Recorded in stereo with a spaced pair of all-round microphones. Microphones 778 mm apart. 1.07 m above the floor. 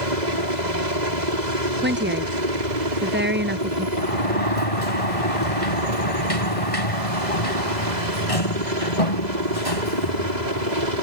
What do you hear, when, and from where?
0.0 s a helicopter: 65° right (ahead or behind)
1.8 s a woman speaking: 15° right (ahead or behind)
4.0 s a sliding door: 45° left (ahead or behind)